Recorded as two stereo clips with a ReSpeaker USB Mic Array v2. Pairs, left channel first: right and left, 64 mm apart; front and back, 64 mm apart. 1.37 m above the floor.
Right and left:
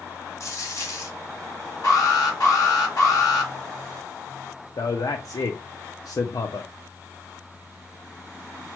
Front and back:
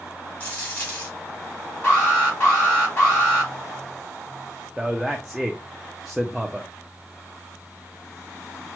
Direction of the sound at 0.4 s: 60° right.